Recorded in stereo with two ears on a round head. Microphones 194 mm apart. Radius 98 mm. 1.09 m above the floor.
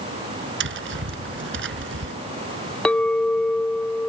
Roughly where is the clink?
Centre.